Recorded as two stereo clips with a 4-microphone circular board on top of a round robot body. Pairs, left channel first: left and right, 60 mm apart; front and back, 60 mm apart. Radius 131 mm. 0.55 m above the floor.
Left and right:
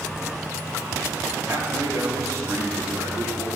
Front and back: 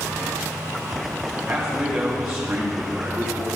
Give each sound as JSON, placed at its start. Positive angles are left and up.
{"t": 1.5, "sound": "a man speaking", "azimuth_deg": -120, "distance_m": 1.5}